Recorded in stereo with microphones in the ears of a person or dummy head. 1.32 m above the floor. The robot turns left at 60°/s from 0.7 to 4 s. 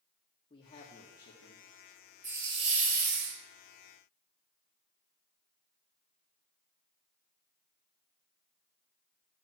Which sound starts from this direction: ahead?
A hiss, at 2.2 s.